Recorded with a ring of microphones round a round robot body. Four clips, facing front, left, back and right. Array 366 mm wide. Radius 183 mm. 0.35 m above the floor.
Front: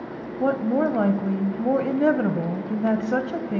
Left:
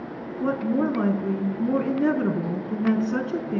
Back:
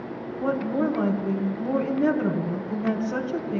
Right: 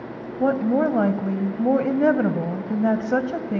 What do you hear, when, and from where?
0.4 s a woman speaking: 60° right, 2.5 m